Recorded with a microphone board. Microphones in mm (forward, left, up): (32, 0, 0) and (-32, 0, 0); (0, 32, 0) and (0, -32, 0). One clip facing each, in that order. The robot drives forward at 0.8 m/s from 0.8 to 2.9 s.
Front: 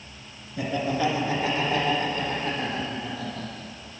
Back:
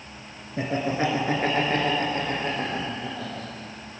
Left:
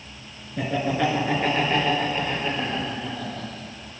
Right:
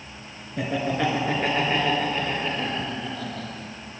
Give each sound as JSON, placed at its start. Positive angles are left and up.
{"t": 0.6, "sound": "laughter", "azimuth_deg": -175, "distance_m": 1.6}